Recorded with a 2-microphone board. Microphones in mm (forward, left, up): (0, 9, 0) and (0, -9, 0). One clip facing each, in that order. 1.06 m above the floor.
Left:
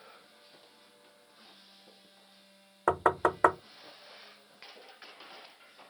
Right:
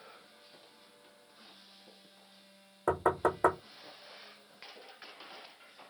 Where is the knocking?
40° left (ahead or behind), 0.5 m.